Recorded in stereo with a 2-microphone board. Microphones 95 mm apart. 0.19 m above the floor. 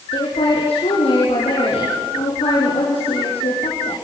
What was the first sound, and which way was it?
A woman speaking, 80° left.